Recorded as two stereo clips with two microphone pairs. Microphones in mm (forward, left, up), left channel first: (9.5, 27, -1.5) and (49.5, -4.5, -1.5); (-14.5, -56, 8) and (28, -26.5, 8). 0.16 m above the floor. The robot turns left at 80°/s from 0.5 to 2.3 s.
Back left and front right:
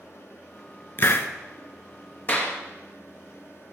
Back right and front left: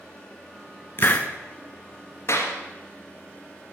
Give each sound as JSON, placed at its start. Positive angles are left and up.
{"t": 1.0, "sound": "a hiss", "azimuth_deg": -175, "distance_m": 1.0}
{"t": 2.3, "sound": "a clap", "azimuth_deg": -165, "distance_m": 2.5}